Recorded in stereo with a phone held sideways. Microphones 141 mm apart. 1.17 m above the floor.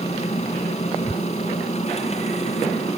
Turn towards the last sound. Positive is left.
turn(degrees=50)  # may be behind; listen again after turning